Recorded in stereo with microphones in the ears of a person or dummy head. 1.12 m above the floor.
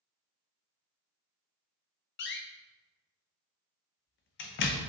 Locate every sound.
2.2 s a door slam: 55° left (ahead or behind), 0.6 m